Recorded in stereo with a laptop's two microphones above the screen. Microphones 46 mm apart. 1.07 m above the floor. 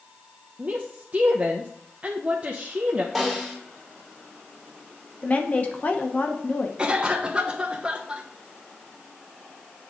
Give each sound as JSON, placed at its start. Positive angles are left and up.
{"t": 0.6, "sound": "a woman speaking", "side_deg": -30, "distance_m": 0.8}
{"t": 3.1, "sound": "a snare drum", "side_deg": 0, "distance_m": 2.5}
{"t": 5.2, "sound": "a woman speaking", "side_deg": 35, "distance_m": 0.9}
{"t": 6.8, "sound": "a cough", "side_deg": -20, "distance_m": 1.0}